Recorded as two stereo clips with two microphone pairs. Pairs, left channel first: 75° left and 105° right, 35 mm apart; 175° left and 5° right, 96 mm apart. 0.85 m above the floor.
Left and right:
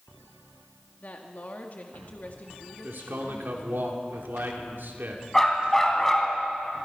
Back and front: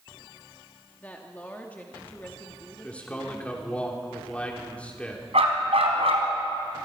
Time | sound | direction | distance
1.0 | a woman speaking | 105° left | 1.6 m
2.8 | a man speaking | 105° right | 3 m
5.3 | a dog barking | 5° right | 3.5 m